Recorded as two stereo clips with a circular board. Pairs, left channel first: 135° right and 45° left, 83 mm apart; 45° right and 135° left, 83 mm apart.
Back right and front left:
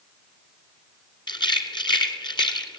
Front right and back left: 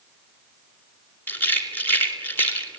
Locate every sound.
1.3 s a rattle: 110° right, 3 m